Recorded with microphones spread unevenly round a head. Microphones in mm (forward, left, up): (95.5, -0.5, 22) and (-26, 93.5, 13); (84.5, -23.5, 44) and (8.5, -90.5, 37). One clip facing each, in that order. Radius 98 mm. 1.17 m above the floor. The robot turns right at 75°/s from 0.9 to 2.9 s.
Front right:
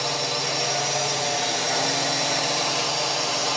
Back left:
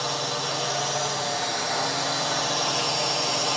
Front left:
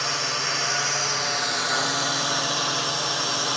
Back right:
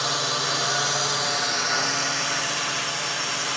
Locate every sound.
0.0 s a drone: 95° right; by 3.6 s 55° left